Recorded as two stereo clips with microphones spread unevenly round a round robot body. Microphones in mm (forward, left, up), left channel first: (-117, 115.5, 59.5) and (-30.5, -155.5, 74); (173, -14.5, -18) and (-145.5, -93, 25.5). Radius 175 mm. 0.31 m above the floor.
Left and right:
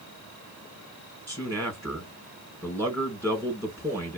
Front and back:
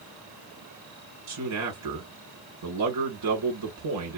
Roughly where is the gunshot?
No gunshot in this recording.